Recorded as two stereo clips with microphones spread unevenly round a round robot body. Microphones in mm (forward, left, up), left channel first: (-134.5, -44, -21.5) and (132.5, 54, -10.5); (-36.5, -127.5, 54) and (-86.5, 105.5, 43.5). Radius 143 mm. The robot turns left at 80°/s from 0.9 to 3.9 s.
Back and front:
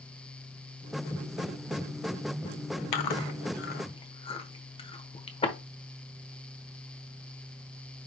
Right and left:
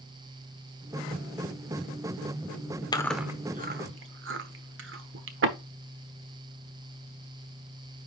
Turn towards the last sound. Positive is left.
turn(degrees=130)